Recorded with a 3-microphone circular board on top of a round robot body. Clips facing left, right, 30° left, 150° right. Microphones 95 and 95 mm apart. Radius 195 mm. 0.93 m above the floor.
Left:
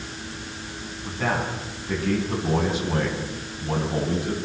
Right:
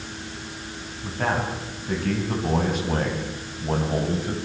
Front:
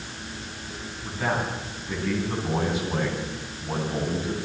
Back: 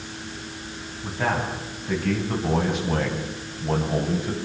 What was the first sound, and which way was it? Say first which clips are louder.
A man speaking: right 1 dB, back 2 dB; 125° right.